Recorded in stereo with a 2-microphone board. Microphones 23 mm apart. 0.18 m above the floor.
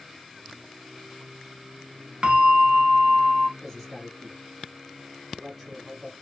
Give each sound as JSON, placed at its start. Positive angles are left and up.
{"t": 2.2, "sound": "a bell", "side_deg": -50, "distance_m": 0.6}
{"t": 3.6, "sound": "a man speaking", "side_deg": -10, "distance_m": 1.2}